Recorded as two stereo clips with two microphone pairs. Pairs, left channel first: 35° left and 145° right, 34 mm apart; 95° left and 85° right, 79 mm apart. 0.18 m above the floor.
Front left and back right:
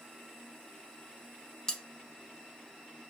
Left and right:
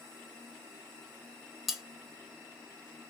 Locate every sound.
1.7 s cutlery clinking: straight ahead, 0.6 m